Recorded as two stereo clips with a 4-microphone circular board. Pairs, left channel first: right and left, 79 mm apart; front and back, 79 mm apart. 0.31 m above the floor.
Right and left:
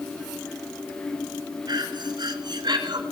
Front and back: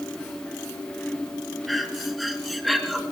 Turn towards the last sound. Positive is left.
turn(degrees=90)